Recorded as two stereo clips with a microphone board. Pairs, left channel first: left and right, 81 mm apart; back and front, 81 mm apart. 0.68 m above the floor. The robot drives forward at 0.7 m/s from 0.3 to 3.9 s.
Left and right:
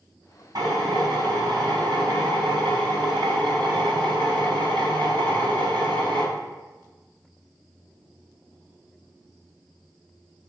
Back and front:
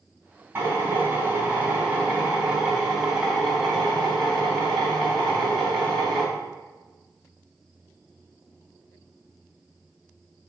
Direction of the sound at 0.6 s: 65° right.